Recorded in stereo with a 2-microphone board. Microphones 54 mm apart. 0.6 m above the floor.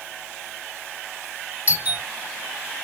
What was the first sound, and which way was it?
A doorbell, 30° right (ahead or behind).